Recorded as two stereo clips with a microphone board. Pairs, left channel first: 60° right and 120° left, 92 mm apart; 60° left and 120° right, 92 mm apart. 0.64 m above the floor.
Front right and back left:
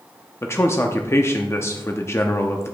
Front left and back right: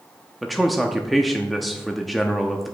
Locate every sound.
0.4 s a man speaking: 30° right, 0.7 m